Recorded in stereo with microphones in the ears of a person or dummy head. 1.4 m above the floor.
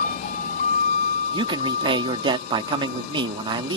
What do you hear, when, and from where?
0.0 s a vehicle: 50° left (ahead or behind); by 3.8 s 40° left (ahead or behind)
1.3 s a man speaking: 25° right (ahead or behind)